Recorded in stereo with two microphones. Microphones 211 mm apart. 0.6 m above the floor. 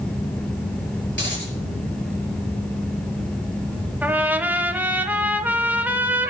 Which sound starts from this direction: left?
A dropped coin, at 1.1 s.